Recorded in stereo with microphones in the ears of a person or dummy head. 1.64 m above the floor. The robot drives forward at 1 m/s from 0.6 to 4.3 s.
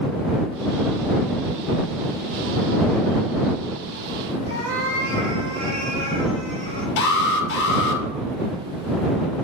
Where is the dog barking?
I don't hear a dog barking.